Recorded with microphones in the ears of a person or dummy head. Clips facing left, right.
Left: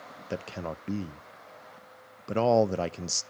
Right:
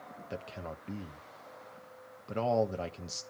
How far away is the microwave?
No microwave in this recording.